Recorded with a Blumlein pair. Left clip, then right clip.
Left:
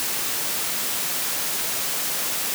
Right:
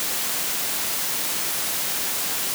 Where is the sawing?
I don't hear sawing.